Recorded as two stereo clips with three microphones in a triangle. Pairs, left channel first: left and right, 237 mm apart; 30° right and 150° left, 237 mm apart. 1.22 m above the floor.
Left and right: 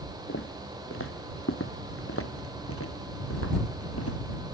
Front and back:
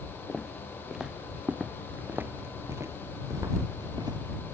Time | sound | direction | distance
0.3 | footsteps | 60° left | ?